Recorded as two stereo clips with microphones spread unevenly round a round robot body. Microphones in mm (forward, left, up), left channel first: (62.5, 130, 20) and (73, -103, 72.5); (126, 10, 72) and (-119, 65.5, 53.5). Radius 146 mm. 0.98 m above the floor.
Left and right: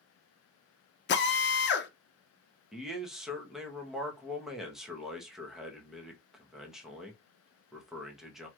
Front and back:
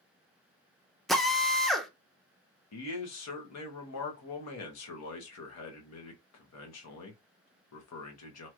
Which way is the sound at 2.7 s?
5° left.